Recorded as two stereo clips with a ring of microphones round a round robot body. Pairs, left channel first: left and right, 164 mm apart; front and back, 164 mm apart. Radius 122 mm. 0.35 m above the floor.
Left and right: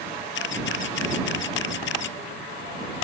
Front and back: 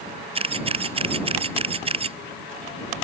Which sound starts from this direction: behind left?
A camera shutter, at 0.3 s.